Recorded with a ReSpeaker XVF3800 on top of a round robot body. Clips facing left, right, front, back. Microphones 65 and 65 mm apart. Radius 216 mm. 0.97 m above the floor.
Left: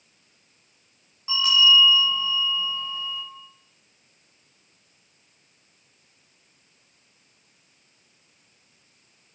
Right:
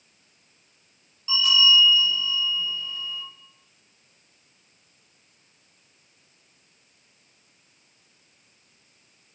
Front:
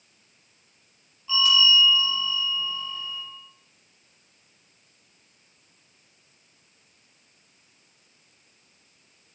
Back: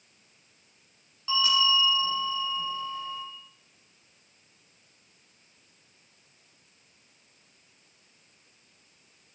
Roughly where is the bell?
Behind left.